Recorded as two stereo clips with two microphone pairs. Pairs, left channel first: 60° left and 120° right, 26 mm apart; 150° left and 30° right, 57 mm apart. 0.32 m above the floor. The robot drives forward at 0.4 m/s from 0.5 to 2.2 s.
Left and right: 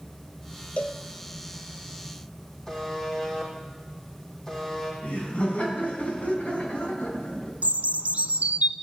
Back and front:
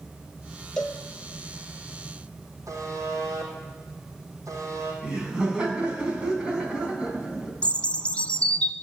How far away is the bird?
About 0.6 m.